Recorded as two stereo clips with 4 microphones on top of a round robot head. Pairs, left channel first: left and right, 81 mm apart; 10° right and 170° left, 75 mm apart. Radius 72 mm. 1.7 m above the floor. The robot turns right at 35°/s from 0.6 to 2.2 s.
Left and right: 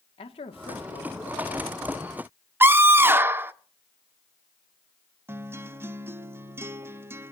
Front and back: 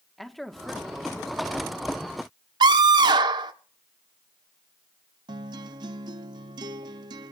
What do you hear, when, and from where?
0.2 s a man speaking: 80° left, 1.9 m; by 1.9 s 125° left, 1.9 m
2.6 s a scream: 155° right, 1.5 m
5.3 s a guitar: 150° right, 0.9 m